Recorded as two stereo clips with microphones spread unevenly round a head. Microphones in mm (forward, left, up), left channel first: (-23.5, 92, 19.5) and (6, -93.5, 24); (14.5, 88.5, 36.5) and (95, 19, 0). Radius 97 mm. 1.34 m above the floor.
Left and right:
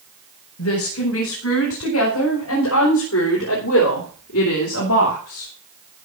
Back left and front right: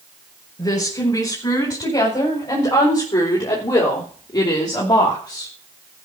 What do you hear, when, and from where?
0.6 s a woman speaking: 85° left, 5.5 m